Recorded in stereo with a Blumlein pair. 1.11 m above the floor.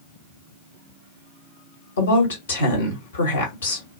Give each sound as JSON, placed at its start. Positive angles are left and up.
{"t": 2.0, "sound": "a woman speaking", "azimuth_deg": 65, "distance_m": 1.6}